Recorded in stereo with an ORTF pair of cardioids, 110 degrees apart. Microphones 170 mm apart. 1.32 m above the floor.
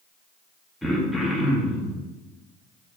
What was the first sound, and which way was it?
Throat clearing, straight ahead.